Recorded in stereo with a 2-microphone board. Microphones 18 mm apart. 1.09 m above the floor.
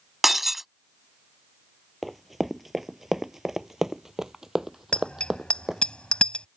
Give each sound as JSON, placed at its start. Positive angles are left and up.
{"t": 0.2, "sound": "breaking glass", "side_deg": -15}
{"t": 2.0, "sound": "running footsteps", "side_deg": -5}
{"t": 4.9, "sound": "a bicycle bell", "side_deg": 70}